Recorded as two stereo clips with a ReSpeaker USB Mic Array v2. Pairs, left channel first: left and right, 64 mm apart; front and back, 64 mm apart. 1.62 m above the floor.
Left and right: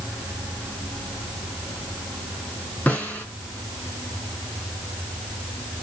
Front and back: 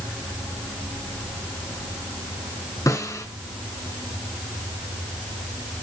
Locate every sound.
2.9 s a snare drum: 25° left, 3.5 m